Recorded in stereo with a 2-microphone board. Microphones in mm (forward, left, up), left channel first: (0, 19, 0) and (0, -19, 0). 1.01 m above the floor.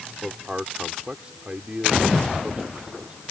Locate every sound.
0.2 s a man speaking: 30° right (ahead or behind)